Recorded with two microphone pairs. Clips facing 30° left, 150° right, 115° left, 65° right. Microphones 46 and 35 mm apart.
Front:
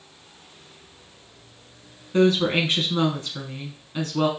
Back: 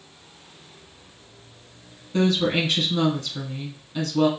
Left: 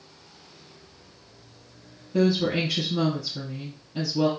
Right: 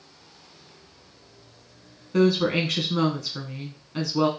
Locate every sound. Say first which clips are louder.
2.1 s a woman speaking: front 2 dB, right 2 dB; 45° right, 1.1 m